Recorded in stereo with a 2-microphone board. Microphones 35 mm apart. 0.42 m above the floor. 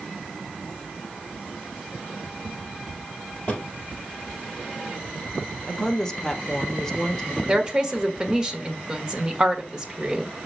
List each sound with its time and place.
3.5 s a drawer: 35° left (ahead or behind), 2.5 m
5.7 s a woman speaking: 15° left (ahead or behind), 0.9 m
7.5 s a woman speaking: 20° right (ahead or behind), 1.3 m